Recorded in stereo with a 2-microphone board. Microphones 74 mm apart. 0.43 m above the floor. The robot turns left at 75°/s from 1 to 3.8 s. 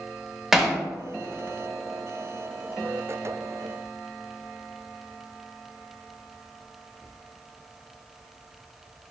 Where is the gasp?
No gasp in this recording.